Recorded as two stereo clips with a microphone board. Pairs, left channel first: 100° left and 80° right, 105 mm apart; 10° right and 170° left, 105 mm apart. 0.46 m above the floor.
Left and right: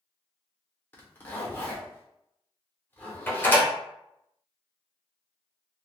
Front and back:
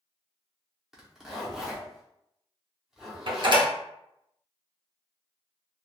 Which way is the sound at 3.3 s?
160° left.